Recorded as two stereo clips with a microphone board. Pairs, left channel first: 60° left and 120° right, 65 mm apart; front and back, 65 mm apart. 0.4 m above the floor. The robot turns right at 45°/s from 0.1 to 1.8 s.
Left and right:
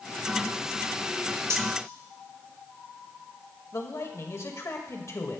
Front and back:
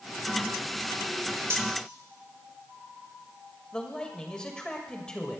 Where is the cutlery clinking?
145° right, 1.0 m; by 1.7 s 135° right, 1.0 m.